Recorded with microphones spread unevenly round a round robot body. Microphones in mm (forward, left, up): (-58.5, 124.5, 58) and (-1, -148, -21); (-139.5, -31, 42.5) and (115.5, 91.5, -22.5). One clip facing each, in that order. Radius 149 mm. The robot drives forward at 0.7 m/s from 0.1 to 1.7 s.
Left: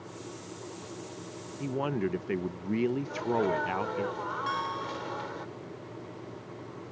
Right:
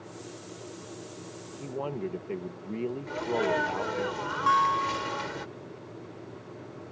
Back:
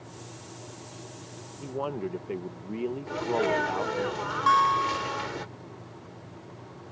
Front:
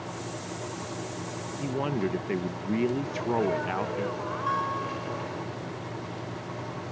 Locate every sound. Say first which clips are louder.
1.6 s a man speaking: left 3 dB, front 3 dB; 35° left; by 4.1 s 40° left
3.1 s a sneeze: even, even; 115° right
4.5 s a guitar: right 4 dB, back 2 dB; 155° right